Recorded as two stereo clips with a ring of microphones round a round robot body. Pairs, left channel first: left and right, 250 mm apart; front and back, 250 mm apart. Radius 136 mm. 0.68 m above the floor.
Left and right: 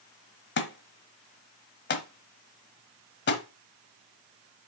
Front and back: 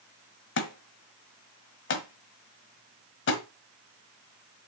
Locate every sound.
0.6 s a thud: 45° left, 1.3 m